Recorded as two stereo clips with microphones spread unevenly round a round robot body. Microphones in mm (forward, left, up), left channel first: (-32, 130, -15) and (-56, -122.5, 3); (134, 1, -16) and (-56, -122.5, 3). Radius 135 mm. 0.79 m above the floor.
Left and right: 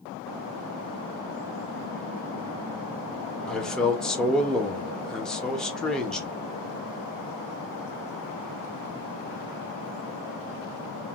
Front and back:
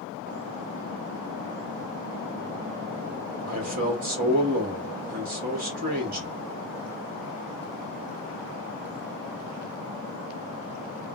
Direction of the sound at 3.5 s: 165° left.